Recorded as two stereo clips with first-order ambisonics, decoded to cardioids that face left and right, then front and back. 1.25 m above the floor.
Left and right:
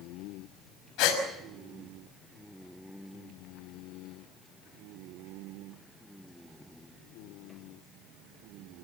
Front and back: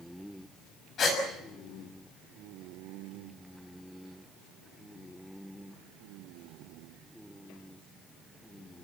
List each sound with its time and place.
1.0 s a gasp: 60° left, 6 m